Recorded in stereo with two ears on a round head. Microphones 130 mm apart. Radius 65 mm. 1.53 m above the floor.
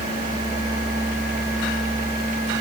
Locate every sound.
Only background noise.